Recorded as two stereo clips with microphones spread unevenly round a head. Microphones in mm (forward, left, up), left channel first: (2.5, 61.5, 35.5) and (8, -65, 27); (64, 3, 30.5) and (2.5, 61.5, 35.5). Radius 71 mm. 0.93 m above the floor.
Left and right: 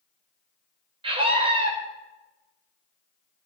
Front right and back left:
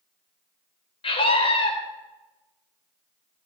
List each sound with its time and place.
1.0 s a scream: 40° right, 5 m